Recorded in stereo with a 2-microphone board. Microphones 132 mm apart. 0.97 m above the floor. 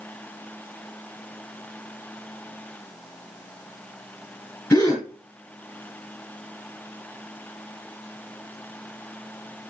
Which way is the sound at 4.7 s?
20° left (ahead or behind).